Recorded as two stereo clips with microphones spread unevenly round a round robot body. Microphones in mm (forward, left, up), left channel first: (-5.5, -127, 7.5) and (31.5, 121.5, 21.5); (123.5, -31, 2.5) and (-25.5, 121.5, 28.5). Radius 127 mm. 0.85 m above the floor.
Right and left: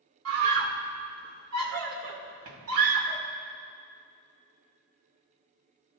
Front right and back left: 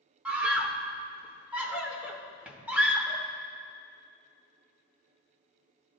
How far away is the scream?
About 2.5 m.